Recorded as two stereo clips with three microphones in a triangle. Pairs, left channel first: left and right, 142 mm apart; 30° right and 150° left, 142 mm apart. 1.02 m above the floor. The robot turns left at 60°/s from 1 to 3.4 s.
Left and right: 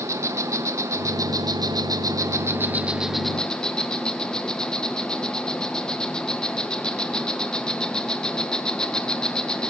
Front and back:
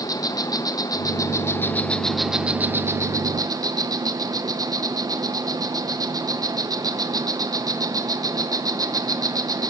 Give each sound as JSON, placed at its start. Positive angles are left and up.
{"t": 0.0, "sound": "an insect", "azimuth_deg": -50, "distance_m": 1.0}